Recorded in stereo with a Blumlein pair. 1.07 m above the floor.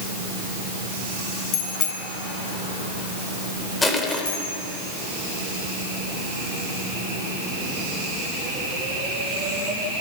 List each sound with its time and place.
1.5 s a bicycle bell: 40° left, 6.5 m
3.8 s crushing: 10° left, 3.5 m